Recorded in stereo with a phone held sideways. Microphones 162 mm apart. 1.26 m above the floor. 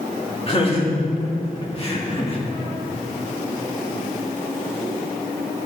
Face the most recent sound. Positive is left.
turn(degrees=35)  # may be behind; listen again after turning